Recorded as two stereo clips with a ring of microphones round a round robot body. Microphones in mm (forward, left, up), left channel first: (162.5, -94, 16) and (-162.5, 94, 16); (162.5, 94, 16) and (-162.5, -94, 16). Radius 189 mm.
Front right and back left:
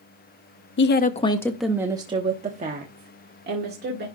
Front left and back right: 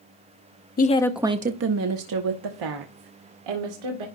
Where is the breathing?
No breathing in this recording.